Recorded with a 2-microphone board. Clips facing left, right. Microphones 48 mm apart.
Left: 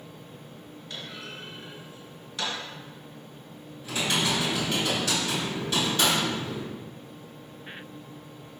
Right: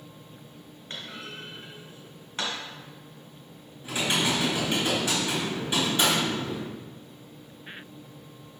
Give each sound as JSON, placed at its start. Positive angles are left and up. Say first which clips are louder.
{"t": 0.9, "sound": "a clunk", "louder": "right 1 dB", "side_deg": -40, "distance_m": 2.0}
{"t": 3.8, "sound": "typing on a keyboard", "louder": "right 1 dB", "side_deg": -20, "distance_m": 3.0}